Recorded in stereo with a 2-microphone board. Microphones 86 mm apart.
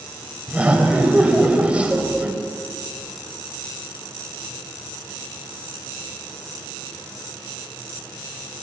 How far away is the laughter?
About 1.5 m.